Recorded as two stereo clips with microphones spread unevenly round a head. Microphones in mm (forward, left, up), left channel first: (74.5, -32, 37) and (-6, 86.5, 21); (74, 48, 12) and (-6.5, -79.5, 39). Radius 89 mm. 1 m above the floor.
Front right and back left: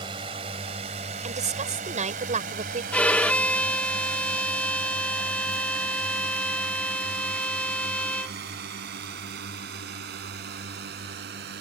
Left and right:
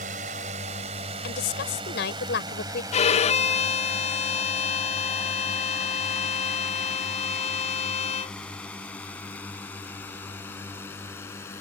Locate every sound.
0.0 s a drone: 170° right; by 11.6 s 135° left
1.2 s a woman speaking: 85° left
2.9 s a violin: 30° left